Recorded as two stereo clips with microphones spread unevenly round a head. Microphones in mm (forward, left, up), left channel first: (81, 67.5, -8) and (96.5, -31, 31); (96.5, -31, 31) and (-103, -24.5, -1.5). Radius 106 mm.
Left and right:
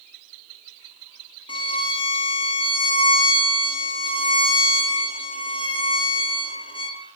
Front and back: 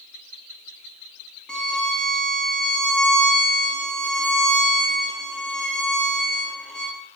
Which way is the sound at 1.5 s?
90° left.